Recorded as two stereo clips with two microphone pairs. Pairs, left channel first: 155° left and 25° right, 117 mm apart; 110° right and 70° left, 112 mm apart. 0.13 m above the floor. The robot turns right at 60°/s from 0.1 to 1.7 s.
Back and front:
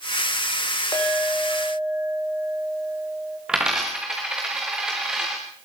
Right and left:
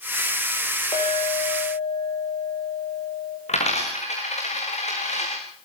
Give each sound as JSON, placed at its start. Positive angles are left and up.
{"t": 0.9, "sound": "a clink", "azimuth_deg": -145, "distance_m": 8.0}
{"t": 3.5, "sound": "a dropped coin", "azimuth_deg": -110, "distance_m": 5.5}